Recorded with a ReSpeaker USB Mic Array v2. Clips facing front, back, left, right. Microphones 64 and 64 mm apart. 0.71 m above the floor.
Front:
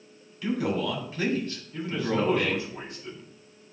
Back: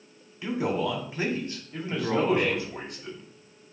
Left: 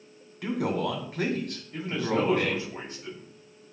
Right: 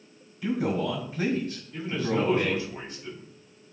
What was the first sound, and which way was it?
A man speaking, 115° left.